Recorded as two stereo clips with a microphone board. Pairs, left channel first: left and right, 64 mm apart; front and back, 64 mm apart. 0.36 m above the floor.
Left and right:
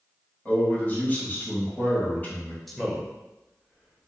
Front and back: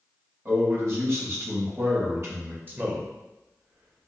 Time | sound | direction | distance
0.5 | a man speaking | 150° left | 1.8 m
2.7 | a man speaking | 175° left | 1.0 m